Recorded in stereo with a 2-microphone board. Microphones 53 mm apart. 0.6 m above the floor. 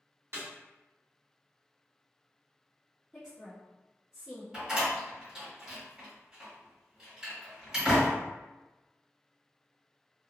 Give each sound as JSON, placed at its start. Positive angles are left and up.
{"t": 0.3, "sound": "a snare drum", "side_deg": -55, "distance_m": 1.2}
{"t": 3.1, "sound": "a woman speaking", "side_deg": -5, "distance_m": 1.1}
{"t": 4.5, "sound": "a door slam", "side_deg": -10, "distance_m": 1.4}